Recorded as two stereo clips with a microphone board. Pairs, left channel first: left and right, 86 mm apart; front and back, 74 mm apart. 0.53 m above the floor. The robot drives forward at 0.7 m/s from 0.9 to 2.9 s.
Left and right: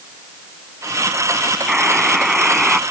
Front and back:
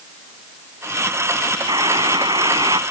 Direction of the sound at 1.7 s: 175° right.